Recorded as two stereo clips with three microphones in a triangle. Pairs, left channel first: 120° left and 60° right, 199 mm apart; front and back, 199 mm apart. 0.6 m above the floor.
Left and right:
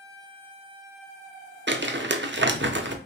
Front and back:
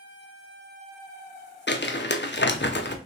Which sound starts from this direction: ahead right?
Crumpling, at 1.7 s.